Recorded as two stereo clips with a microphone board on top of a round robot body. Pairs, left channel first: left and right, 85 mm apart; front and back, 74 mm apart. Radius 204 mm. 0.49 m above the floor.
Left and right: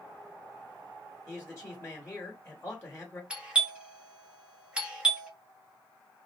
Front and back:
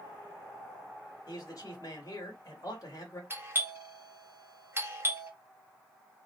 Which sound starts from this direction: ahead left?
A man speaking, at 1.3 s.